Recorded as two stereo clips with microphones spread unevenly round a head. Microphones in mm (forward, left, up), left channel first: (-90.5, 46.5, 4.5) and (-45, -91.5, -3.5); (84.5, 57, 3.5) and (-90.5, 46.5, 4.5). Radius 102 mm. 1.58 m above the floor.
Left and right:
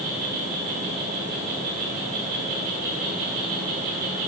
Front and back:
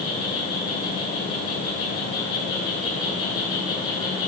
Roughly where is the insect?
Ahead right.